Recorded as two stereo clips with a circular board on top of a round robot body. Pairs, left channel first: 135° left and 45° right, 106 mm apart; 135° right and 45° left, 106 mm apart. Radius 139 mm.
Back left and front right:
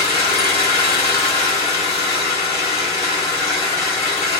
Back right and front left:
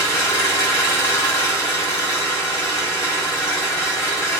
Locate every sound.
0.0 s an engine running: 160° left, 2 m